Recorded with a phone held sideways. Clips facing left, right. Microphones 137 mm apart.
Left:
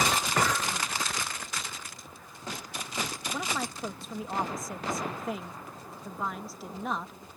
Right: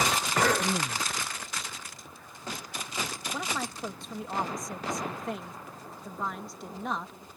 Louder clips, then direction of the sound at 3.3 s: Left 1 dB; 5° left (ahead or behind).